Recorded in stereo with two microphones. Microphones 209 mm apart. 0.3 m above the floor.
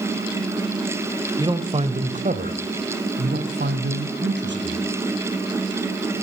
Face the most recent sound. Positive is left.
turn(degrees=-65)  # may be behind; listen again after turning